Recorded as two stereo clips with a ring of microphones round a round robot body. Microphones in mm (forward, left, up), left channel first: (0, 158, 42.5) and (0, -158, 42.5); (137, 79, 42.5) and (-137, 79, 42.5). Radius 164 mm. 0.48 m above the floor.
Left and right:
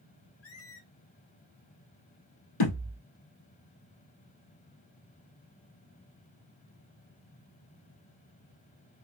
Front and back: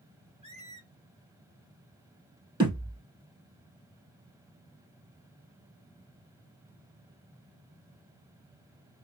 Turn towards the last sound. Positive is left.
turn(degrees=110)